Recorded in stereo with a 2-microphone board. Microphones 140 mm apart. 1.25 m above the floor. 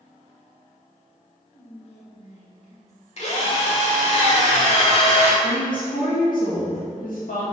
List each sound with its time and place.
1.5 s whispering: 55° left (ahead or behind), 1.5 m
3.2 s a drill: 50° left (ahead or behind), 1.4 m
5.4 s a woman speaking: 80° left, 1.9 m